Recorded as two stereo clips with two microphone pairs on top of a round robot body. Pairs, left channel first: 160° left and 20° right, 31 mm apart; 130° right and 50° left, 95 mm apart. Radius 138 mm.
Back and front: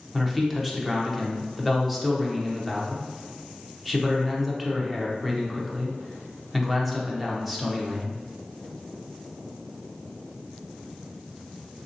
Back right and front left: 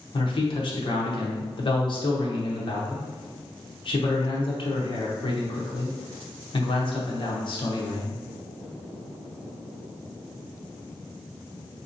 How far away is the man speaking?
About 1.0 m.